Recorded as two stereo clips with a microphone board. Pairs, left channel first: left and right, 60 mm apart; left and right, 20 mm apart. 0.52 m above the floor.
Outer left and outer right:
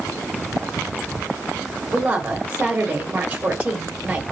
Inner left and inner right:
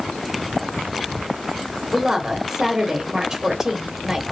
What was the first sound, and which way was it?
A woman speaking, 20° right (ahead or behind).